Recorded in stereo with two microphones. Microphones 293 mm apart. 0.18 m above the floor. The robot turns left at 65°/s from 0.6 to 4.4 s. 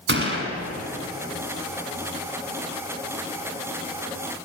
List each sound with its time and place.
0.1 s a gunshot: 40° right (ahead or behind), 1.5 m